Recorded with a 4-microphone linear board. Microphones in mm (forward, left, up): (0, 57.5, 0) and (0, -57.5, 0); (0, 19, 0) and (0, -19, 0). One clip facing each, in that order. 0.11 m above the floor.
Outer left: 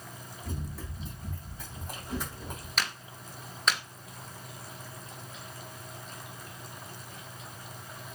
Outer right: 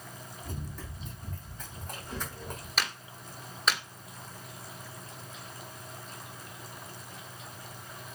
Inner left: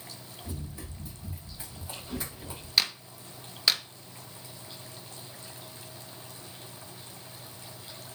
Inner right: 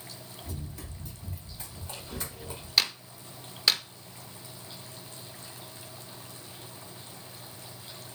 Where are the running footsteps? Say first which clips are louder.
Outer left 3 dB, inner left 2 dB; 10° left (ahead or behind), 7 m.